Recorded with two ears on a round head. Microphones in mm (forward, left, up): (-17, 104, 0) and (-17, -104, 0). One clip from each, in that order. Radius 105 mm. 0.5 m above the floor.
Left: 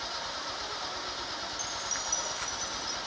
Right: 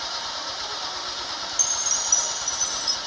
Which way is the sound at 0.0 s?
25° right (ahead or behind).